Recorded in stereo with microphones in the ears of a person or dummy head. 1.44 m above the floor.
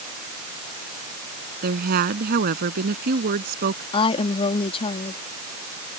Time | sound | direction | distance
1.6 | a woman speaking | 50° right (ahead or behind) | ?
3.9 | a woman speaking | 30° left (ahead or behind) | ?